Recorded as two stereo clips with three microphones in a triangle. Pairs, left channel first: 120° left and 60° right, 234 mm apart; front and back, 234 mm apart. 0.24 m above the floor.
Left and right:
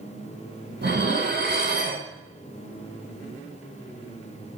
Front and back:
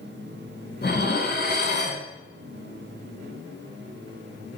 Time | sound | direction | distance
0.8 | dishes clattering | 30° right | 1.2 m